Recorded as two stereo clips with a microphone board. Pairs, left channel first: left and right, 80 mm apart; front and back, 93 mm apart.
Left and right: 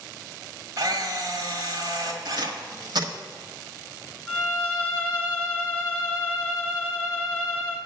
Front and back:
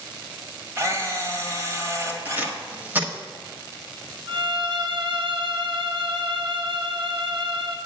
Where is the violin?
160° left, 1.5 m.